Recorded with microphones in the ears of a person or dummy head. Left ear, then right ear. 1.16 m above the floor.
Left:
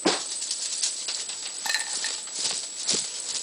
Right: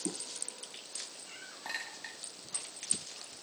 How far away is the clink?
About 1.8 m.